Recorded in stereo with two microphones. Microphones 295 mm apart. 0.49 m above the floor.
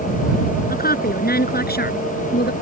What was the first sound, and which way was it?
A woman speaking, 30° left (ahead or behind).